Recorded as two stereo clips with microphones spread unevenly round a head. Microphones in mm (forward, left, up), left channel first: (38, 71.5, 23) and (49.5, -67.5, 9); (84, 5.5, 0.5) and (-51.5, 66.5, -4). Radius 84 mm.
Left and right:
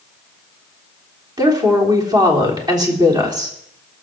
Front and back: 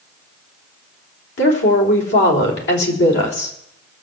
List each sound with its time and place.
1.4 s a woman speaking: 20° right, 3.5 m